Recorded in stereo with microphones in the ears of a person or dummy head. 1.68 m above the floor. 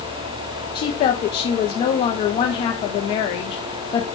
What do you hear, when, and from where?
0.8 s a woman speaking: 25° left (ahead or behind), 0.5 m